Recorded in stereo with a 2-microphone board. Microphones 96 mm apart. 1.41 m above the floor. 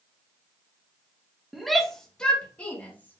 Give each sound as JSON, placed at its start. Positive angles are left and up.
{"t": 1.5, "sound": "a shout", "side_deg": 0, "distance_m": 1.9}